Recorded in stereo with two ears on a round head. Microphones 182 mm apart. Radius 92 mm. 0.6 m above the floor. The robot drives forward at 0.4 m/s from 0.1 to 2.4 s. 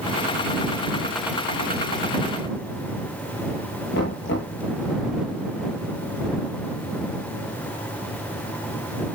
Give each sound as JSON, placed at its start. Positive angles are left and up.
{"t": 3.9, "sound": "knocking", "side_deg": 65, "distance_m": 9.0}